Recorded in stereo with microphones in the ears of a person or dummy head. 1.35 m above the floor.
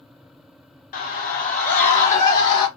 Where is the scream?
45° left (ahead or behind), 0.5 m; by 2.7 s 40° left (ahead or behind), 1.3 m.